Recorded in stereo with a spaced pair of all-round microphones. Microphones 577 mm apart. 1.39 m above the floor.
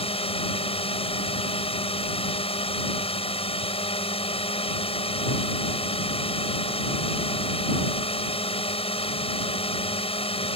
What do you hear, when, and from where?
0.0 s a drone: 10° left (ahead or behind)